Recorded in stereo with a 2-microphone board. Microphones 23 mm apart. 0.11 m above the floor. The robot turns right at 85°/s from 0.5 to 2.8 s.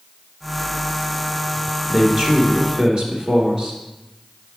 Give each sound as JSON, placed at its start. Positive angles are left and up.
{"t": 1.9, "sound": "a man speaking", "azimuth_deg": -140, "distance_m": 1.7}